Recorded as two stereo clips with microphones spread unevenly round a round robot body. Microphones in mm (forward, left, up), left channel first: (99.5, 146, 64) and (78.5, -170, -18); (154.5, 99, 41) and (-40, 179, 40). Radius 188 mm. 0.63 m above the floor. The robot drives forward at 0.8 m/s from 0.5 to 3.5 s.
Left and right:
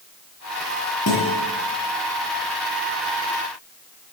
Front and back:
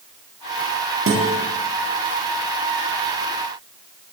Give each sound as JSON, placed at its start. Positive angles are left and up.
{"t": 1.1, "sound": "a guitar", "azimuth_deg": 140, "distance_m": 9.5}